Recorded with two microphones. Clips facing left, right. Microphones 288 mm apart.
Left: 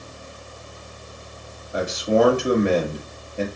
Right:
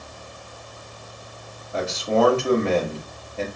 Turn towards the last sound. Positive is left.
turn(degrees=15)  # may be behind; listen again after turning